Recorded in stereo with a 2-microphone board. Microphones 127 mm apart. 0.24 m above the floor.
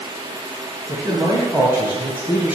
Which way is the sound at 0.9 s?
25° right (ahead or behind).